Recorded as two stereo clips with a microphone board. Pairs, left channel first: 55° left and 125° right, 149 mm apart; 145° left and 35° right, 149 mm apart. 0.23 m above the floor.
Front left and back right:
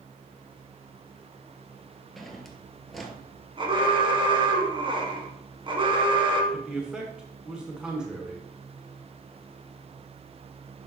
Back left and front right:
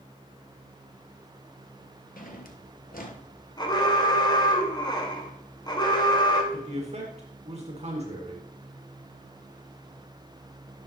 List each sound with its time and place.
2.2 s a drawer: 145° left, 1.1 m
3.6 s an alarm: 165° right, 1.4 m
6.5 s a man speaking: 40° right, 1.8 m